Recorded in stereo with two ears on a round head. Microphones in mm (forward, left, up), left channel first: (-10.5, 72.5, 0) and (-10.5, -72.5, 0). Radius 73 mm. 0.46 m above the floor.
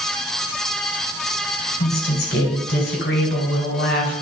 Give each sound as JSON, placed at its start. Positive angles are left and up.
{"t": 1.8, "sound": "a woman speaking", "side_deg": 70, "distance_m": 3.0}